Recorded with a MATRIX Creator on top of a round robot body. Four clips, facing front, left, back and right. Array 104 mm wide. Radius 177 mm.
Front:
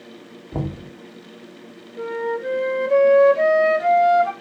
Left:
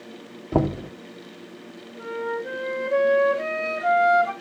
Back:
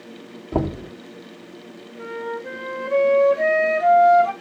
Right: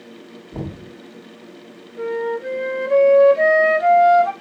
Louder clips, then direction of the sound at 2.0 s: Right 6 dB, front 5 dB; 35° right.